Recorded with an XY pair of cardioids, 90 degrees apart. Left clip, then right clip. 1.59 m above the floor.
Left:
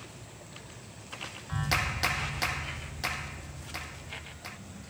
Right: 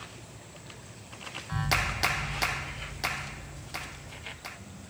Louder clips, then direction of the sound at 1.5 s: Right 2 dB; 15° right.